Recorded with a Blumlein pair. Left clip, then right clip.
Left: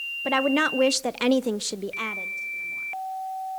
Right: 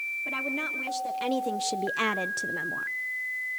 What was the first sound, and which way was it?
A woman speaking, 50° left.